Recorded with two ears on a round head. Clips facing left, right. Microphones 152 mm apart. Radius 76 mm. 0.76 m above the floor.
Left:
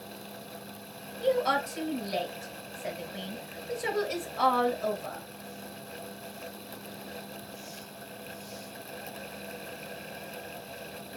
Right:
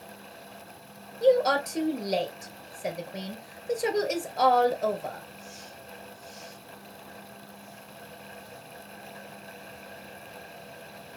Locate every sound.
1.2 s a woman speaking: 50° right (ahead or behind), 2.5 m